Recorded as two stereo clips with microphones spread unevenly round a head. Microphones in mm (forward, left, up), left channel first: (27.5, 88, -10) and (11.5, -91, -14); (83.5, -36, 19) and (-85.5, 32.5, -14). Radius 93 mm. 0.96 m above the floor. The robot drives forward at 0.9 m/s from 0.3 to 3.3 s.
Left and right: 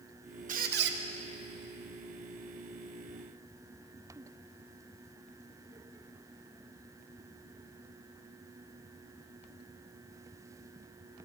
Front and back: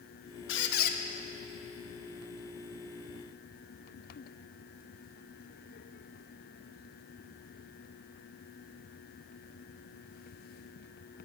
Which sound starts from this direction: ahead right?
A squeak, at 0.5 s.